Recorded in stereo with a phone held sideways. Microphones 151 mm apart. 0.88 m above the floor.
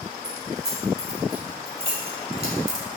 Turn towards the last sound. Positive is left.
turn(degrees=-40)  # may be behind; listen again after turning